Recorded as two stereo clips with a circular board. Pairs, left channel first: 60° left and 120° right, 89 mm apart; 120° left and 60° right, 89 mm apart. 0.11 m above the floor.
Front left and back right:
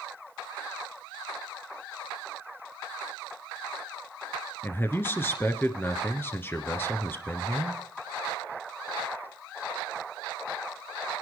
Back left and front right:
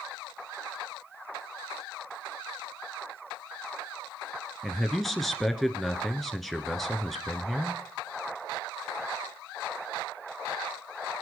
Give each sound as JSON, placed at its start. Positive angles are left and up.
{"t": 4.6, "sound": "a man speaking", "azimuth_deg": 30, "distance_m": 1.3}